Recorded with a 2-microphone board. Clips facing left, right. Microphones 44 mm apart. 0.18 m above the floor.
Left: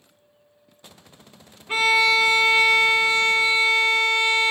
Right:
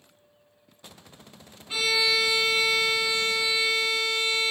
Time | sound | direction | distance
1.7 | a violin | 45° left (ahead or behind) | 0.5 m